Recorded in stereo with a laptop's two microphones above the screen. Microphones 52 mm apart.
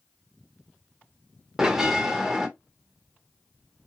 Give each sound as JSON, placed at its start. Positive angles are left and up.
{"t": 1.6, "sound": "a bell", "side_deg": -10, "distance_m": 0.8}